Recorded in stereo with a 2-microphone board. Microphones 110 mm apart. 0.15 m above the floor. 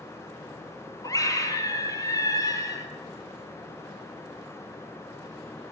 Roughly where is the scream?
Left.